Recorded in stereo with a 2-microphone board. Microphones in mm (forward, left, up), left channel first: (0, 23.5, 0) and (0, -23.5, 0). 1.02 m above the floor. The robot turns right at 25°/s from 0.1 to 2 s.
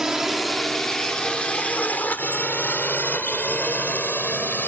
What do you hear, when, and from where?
0.0 s a drone: 10° right (ahead or behind); by 4.7 s 40° left (ahead or behind)